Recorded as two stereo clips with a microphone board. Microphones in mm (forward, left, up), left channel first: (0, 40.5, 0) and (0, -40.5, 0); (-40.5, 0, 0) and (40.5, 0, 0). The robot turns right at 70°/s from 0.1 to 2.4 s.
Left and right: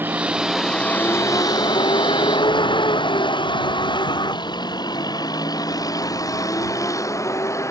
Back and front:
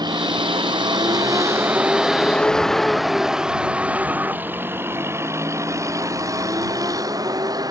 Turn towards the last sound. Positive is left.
turn(degrees=35)